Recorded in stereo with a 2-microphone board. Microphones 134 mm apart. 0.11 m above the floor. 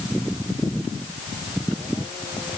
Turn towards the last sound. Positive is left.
No sound to turn to.